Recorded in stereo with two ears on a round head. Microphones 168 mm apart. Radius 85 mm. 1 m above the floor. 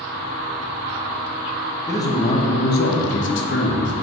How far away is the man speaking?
About 1.2 m.